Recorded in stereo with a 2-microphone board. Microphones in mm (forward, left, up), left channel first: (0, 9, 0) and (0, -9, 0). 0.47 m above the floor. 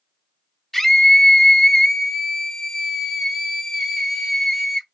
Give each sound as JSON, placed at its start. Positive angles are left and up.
{"t": 0.7, "sound": "a scream", "side_deg": 5, "distance_m": 1.1}